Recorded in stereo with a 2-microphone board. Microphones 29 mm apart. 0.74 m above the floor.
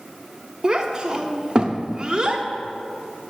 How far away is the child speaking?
About 0.9 m.